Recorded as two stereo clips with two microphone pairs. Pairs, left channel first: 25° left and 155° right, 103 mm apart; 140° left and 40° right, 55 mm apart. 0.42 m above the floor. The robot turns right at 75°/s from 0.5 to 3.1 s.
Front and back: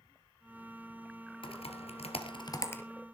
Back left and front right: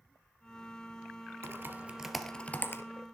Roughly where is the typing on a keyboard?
Ahead.